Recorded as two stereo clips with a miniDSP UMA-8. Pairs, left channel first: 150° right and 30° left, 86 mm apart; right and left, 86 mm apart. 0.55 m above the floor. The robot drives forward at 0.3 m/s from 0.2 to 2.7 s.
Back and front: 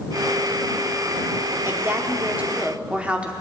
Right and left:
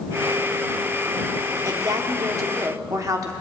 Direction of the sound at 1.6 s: 75° left.